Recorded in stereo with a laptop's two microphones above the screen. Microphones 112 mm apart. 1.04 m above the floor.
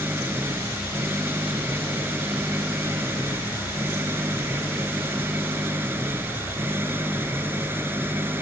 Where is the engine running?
20° right (ahead or behind).